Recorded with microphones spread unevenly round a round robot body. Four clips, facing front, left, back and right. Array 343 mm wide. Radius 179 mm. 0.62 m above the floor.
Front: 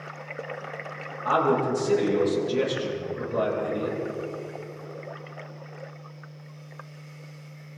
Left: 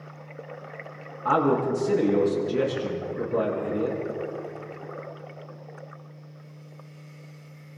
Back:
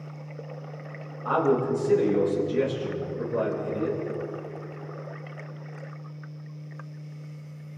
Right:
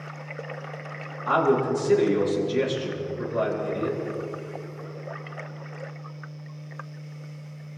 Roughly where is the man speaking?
Left.